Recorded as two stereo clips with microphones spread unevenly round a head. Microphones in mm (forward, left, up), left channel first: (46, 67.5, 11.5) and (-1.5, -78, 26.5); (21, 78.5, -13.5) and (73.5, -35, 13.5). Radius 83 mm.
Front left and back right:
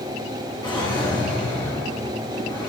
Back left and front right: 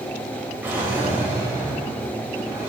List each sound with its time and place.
0.6 s a drawer: 10° left, 4.5 m